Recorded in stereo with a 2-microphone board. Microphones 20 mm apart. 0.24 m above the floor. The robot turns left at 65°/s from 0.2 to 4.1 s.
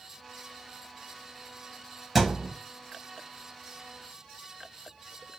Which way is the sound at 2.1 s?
Centre (ahead or behind).